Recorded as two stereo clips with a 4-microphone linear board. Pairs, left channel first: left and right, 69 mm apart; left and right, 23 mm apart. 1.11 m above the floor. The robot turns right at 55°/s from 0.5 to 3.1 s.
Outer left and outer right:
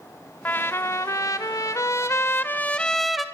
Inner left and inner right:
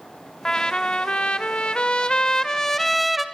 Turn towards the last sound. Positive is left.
turn(degrees=180)